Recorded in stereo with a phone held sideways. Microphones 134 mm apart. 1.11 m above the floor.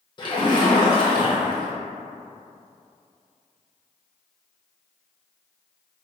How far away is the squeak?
I don't hear a squeak.